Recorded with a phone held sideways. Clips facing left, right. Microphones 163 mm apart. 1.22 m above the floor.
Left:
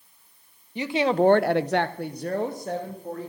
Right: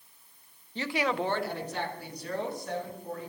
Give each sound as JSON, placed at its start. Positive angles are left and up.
{"t": 0.8, "sound": "a woman speaking", "side_deg": 15, "distance_m": 1.0}